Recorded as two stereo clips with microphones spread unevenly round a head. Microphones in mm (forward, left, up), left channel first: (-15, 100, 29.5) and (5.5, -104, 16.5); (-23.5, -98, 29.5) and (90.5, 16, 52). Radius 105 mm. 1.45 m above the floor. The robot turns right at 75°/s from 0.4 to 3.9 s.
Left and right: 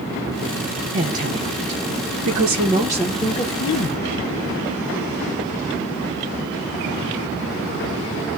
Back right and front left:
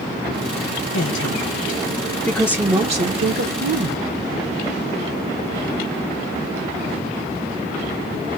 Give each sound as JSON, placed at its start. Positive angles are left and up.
{"t": 0.9, "sound": "a woman speaking", "azimuth_deg": -155, "distance_m": 0.8}